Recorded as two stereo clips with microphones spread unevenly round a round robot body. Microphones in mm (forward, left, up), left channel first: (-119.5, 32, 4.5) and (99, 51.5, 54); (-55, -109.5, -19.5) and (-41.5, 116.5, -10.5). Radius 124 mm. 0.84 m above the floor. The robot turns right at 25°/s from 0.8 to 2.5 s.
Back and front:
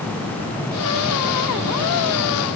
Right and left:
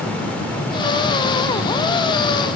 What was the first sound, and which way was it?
Only background noise.